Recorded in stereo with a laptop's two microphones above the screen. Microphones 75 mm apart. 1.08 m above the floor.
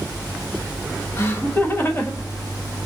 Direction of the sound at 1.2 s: 35° left (ahead or behind).